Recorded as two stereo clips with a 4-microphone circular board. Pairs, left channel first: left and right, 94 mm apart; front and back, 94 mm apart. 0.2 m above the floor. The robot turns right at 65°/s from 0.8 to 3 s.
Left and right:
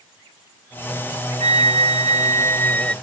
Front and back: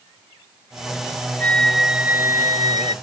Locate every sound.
1.4 s a flute: 70° left; by 2.9 s 170° left